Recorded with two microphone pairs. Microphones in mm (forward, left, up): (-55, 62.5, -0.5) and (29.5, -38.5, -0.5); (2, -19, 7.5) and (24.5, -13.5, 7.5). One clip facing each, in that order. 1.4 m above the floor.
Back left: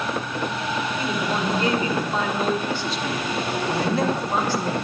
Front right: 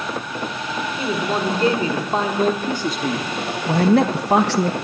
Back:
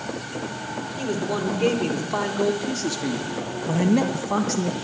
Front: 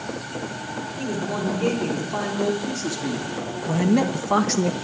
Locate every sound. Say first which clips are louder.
1.0 s a man speaking: front right 6 dB, back 1 dB; 105° right, 4.5 m; by 4.7 s 30° right, 1.0 m